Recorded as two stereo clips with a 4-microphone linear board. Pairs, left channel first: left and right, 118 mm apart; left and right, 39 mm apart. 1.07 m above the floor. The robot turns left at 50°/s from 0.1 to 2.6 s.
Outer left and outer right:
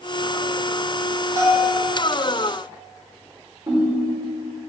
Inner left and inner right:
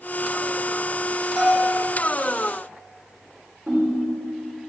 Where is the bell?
25° right (ahead or behind), 3 m; by 1.8 s 45° right (ahead or behind), 3 m.